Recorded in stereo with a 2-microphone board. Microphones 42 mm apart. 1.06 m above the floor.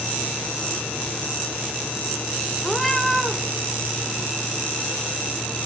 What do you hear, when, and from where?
2.6 s a cat meowing: centre (ahead or behind), 0.8 m